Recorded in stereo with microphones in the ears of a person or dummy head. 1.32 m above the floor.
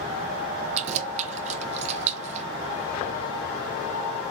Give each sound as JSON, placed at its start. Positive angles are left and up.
{"t": 0.8, "sound": "keys jangling", "side_deg": -45, "distance_m": 0.6}